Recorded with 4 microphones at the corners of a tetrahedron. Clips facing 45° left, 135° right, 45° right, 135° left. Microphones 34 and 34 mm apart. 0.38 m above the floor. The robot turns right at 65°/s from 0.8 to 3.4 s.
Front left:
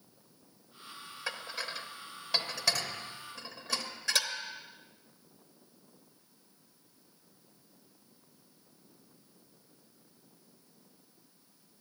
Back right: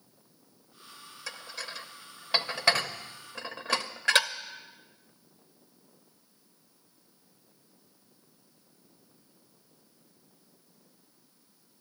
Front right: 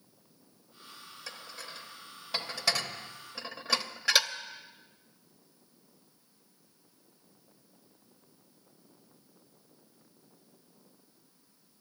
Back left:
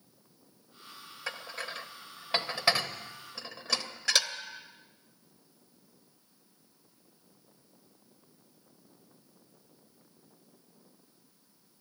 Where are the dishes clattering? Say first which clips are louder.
Front left 2 dB, back left 7 dB; 95° left, 0.8 m; by 4.3 s 125° right, 0.8 m.